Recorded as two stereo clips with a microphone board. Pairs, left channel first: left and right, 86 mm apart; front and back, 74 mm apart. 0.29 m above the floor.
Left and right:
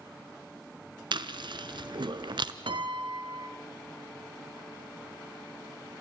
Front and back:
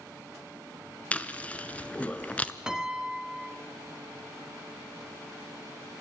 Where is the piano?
100° right, 1.0 m.